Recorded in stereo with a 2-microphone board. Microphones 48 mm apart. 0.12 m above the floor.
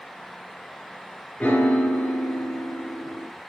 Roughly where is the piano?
Left.